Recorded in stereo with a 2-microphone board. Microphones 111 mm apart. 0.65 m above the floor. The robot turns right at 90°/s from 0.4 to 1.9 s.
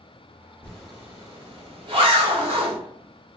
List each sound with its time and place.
0.6 s a zipper: 10° left (ahead or behind), 1.2 m; by 2.8 s 50° right (ahead or behind), 1.2 m